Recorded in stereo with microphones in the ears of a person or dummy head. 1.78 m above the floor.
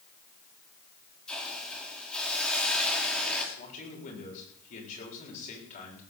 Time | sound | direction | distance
1.3 | a hiss | centre (ahead or behind) | 3.5 m
3.5 | a man speaking | 40° left (ahead or behind) | 7.5 m